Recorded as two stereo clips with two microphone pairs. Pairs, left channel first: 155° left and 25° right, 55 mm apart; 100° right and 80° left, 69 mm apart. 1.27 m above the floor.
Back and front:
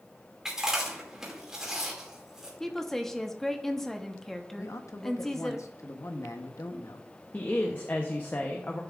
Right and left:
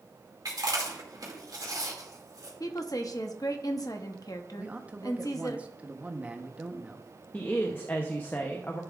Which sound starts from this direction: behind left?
A man speaking, at 4.6 s.